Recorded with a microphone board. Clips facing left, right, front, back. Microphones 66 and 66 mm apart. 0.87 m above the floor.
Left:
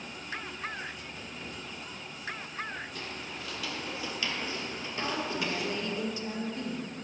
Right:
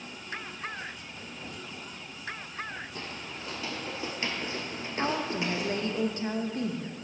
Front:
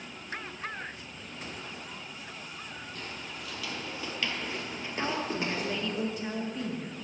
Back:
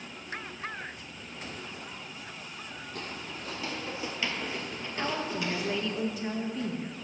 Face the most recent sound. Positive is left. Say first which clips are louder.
# right 3 dB, even
turn(degrees=-90)